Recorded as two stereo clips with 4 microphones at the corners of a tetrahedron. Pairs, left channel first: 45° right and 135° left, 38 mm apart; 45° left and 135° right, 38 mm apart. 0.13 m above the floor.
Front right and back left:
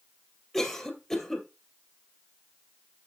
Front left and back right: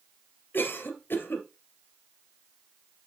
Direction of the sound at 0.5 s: 40° left.